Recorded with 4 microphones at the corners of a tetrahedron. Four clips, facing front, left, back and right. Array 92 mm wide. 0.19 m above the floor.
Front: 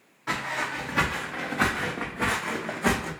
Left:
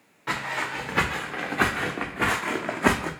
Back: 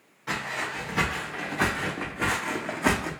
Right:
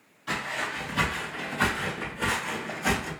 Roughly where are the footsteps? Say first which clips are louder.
Left 2 dB, front 2 dB; ahead left.